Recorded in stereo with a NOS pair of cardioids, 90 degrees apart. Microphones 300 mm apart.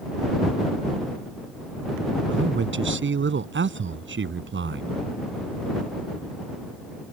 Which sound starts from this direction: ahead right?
A man speaking, at 2.3 s.